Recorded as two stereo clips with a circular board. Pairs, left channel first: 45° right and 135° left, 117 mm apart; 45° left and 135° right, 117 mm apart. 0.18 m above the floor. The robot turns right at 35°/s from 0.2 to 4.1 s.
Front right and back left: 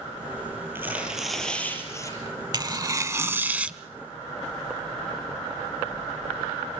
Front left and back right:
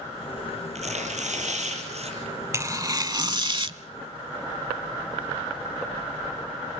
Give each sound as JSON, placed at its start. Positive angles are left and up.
{"t": 0.8, "sound": "tearing paper", "azimuth_deg": -155, "distance_m": 5.0}
{"t": 2.5, "sound": "tearing paper", "azimuth_deg": 170, "distance_m": 0.7}